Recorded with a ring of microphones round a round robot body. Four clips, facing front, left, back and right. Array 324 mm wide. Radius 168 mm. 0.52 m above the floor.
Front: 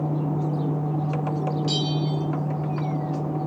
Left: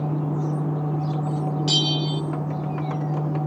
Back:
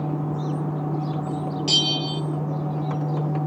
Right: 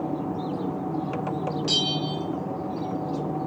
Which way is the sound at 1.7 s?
145° left.